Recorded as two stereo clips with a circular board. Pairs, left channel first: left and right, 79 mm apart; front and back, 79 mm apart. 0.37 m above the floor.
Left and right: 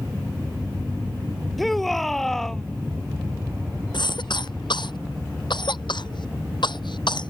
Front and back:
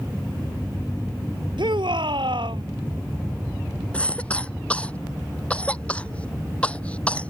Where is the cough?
75° left.